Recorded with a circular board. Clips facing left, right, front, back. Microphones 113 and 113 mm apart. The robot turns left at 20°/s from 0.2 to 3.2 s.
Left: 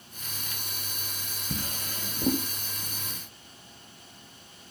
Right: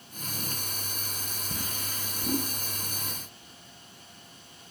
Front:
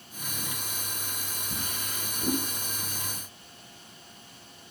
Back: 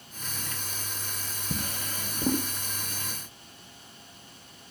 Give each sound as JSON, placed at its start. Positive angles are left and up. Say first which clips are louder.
{"t": 1.5, "sound": "a drawer", "louder": "left 4 dB, back 5 dB", "azimuth_deg": 145, "distance_m": 1.7}